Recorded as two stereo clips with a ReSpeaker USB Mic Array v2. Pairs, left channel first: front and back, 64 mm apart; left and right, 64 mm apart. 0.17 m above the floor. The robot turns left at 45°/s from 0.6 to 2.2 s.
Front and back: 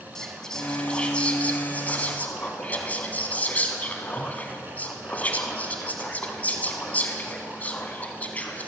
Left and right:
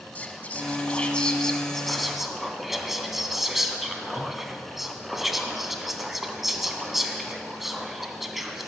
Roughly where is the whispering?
Ahead left.